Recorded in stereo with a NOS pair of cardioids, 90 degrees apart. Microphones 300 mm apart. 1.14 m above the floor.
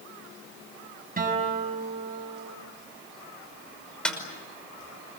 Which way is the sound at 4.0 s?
5° left.